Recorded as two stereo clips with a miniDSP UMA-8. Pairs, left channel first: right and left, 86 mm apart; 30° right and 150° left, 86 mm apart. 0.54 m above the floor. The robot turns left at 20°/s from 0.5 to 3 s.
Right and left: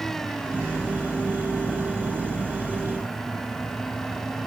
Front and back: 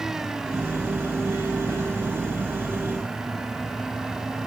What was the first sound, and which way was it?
Only background noise.